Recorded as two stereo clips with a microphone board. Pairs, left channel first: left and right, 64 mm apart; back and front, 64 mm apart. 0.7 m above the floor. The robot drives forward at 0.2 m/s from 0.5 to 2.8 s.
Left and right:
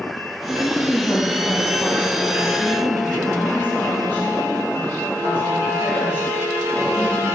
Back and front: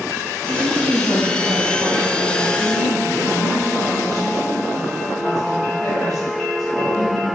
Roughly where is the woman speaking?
Behind left.